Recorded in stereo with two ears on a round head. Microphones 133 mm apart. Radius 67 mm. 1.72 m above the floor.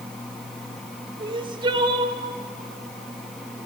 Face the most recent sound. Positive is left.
turn(degrees=-35)  # may be behind; listen again after turning